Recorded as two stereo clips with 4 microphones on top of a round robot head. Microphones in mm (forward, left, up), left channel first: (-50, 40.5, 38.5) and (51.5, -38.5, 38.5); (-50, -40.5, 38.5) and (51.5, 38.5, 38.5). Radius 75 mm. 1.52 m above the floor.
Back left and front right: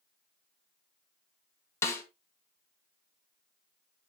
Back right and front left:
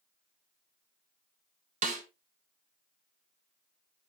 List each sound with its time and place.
1.8 s a snare drum: 70° left, 1.4 m